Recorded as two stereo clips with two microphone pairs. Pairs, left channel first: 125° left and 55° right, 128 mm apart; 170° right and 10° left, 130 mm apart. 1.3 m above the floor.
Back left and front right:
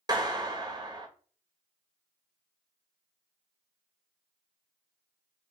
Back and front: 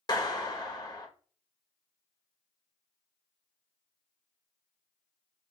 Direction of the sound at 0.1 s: 115° right.